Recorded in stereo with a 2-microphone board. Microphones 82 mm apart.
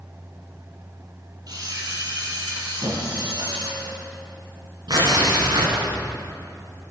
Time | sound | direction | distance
1.5 | a camera shutter | 55° right (ahead or behind) | 7.5 m
2.8 | a squeak | 50° right (ahead or behind) | 8.5 m
4.9 | tearing paper | 65° right (ahead or behind) | 9 m